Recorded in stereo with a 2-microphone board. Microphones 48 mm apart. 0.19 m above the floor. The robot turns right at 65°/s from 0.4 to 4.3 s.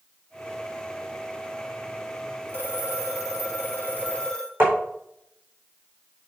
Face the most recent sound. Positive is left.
turn(degrees=-45)  # may be behind; listen again after turning